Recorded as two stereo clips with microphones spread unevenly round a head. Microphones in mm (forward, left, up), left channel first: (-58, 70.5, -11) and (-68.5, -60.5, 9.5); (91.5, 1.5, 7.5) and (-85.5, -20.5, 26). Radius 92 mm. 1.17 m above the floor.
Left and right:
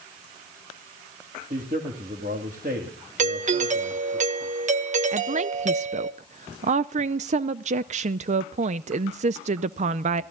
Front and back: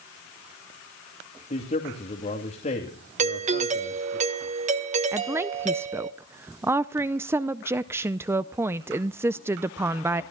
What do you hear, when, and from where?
1.5 s a man speaking: 45° right, 2.5 m
3.2 s a doorbell: 120° right, 1.5 m
5.1 s a woman speaking: 95° right, 0.5 m